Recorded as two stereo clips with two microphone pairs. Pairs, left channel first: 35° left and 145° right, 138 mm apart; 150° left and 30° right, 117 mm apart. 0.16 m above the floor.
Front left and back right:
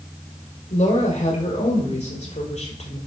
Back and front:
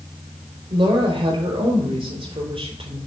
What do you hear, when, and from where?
0.7 s a woman speaking: 10° left, 6 m; by 3.0 s straight ahead, 5 m